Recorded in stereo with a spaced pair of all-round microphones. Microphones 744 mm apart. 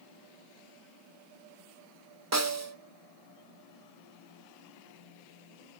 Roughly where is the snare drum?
Right.